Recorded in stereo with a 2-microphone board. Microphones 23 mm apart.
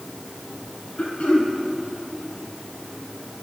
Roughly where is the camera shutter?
No camera shutter in this recording.